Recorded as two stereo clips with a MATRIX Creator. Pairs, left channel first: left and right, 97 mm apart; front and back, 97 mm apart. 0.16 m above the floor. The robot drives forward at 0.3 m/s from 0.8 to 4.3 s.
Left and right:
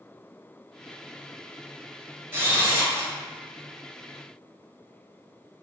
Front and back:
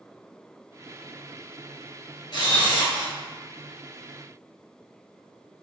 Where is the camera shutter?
25° right, 0.9 m; by 3.1 s 35° right, 0.8 m.